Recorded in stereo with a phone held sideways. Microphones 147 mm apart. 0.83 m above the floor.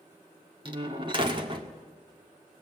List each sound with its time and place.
0.7 s a door slam: 35° right (ahead or behind), 1.8 m